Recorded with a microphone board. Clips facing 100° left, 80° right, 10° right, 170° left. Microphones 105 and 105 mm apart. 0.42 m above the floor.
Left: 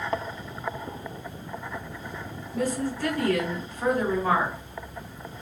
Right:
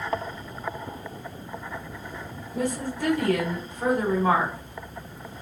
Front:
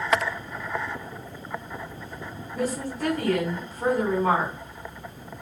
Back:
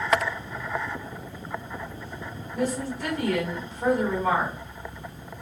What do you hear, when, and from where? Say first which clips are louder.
2.5 s a woman speaking: left 1 dB, back 1 dB; 20° right, 1.7 m